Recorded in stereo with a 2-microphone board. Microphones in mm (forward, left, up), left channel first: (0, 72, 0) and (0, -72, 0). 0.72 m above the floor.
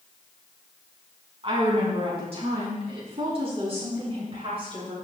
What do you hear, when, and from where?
1.4 s a woman speaking: 40° right (ahead or behind), 6 m; by 5.0 s 45° right (ahead or behind), 8 m